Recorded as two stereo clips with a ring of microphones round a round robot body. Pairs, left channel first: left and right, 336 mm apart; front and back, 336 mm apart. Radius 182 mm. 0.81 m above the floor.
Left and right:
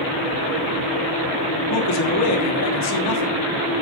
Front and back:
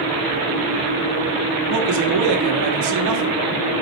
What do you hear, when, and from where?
1.7 s a man speaking: 135° left, 1.2 m